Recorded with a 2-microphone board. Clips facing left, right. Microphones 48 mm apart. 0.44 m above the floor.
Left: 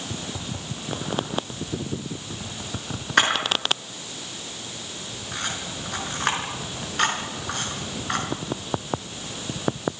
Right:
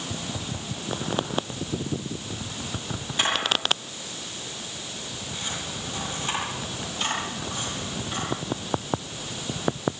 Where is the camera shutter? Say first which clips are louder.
Left 4 dB; 75° left (ahead or behind), 5.5 m.